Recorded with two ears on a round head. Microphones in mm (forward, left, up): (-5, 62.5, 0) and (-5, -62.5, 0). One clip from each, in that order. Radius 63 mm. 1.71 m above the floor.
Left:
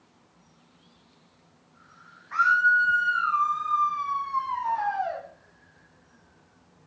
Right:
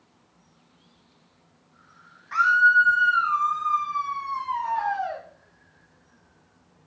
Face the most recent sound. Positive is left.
turn(degrees=-15)  # may be behind; listen again after turning